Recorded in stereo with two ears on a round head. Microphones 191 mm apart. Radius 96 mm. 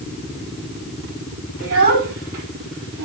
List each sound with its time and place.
1.6 s a child speaking: 75° right (ahead or behind), 2.5 m; by 3.0 s 80° right, 3 m